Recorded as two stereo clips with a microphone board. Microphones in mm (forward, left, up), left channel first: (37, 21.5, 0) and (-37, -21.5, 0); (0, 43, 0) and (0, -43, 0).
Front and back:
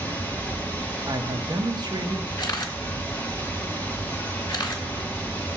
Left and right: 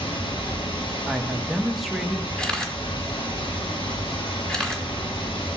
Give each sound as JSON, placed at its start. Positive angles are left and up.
{"t": 0.0, "sound": "running water", "azimuth_deg": 100, "distance_m": 1.6}
{"t": 1.1, "sound": "a man speaking", "azimuth_deg": 180, "distance_m": 0.9}
{"t": 2.4, "sound": "a camera shutter", "azimuth_deg": 5, "distance_m": 1.5}